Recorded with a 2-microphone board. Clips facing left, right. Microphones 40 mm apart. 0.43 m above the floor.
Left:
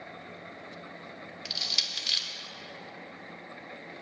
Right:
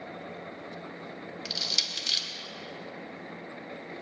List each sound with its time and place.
1.4 s crushing: 5° left (ahead or behind), 1.1 m